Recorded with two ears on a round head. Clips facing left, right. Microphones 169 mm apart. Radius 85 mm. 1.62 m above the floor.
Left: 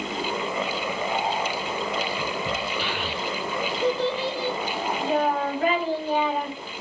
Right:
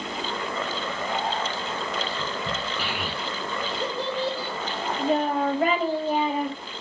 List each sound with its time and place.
2.8 s a child speaking: 35° right (ahead or behind), 1.1 m